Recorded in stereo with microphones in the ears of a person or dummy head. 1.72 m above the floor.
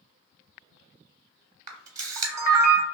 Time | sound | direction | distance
1.7 | a camera shutter | 20° right (ahead or behind) | 0.8 m